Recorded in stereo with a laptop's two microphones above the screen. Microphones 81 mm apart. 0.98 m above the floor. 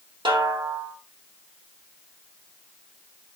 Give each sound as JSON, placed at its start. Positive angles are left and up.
{"t": 0.2, "sound": "a snare drum", "side_deg": -80, "distance_m": 3.0}